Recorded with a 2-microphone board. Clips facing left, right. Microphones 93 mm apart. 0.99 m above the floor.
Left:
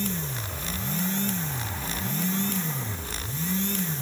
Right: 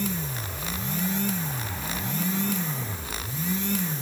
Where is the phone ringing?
No phone ringing in this recording.